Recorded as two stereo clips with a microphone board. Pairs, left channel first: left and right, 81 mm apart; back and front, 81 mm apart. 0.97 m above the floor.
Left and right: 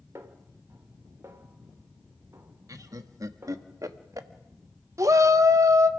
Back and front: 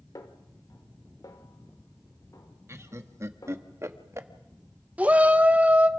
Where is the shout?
65° right, 0.8 m.